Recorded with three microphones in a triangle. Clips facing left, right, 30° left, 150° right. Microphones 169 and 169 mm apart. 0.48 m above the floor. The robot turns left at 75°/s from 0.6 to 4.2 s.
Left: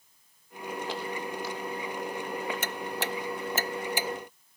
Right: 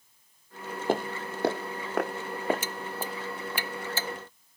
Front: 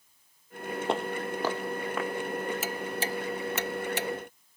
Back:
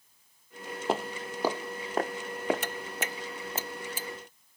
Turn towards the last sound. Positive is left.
turn(degrees=0)